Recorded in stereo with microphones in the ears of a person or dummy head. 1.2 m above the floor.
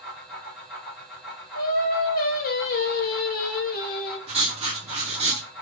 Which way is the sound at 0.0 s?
5° left (ahead or behind).